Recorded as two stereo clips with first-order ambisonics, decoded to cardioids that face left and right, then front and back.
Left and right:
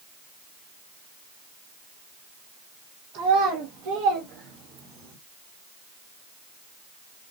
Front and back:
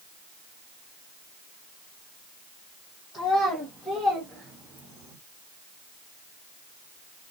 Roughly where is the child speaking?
Right.